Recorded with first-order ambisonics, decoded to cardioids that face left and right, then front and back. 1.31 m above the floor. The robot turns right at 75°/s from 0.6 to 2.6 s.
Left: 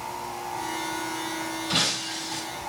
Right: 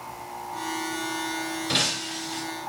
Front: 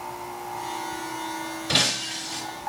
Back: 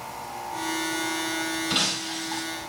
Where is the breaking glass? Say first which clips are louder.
Even, front 5 dB; 35° right, 3.5 m; by 2.4 s 20° left, 3.5 m.